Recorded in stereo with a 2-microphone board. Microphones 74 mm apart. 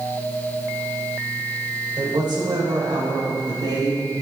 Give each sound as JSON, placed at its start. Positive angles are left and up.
{"t": 2.0, "sound": "a woman speaking", "side_deg": -70, "distance_m": 3.0}